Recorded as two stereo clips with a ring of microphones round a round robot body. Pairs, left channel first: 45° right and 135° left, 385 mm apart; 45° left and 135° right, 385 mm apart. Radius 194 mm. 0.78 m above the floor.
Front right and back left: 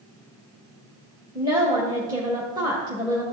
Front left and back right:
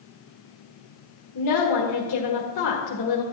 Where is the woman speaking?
60° left, 1.4 m.